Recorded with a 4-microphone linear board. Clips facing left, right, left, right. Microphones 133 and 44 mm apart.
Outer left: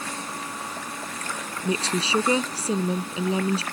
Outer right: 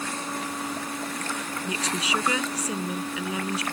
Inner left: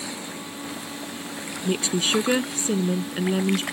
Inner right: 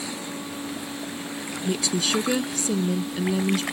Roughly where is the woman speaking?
Left.